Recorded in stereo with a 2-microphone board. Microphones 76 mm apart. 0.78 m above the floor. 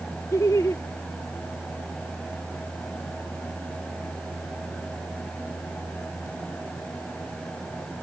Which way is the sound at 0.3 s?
45° left (ahead or behind).